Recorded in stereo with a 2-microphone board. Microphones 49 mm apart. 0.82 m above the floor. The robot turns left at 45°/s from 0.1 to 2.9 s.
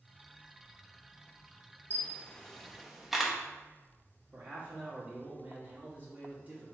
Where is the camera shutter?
30° left (ahead or behind), 0.7 m; by 3.4 s 5° right (ahead or behind), 0.7 m.